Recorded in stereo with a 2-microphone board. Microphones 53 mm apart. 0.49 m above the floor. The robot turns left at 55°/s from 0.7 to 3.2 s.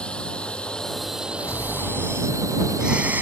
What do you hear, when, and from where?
0.0 s a drone: 20° left; by 3.2 s 120° right
1.4 s snoring: 60° left; by 3.2 s 35° right